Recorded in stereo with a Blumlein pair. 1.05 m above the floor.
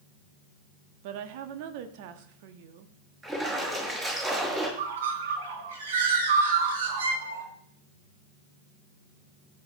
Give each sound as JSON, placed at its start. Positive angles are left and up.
{"t": 1.0, "sound": "a woman speaking", "azimuth_deg": -50, "distance_m": 1.4}
{"t": 3.2, "sound": "a splash", "azimuth_deg": -15, "distance_m": 6.0}
{"t": 4.8, "sound": "a bird", "azimuth_deg": -60, "distance_m": 3.0}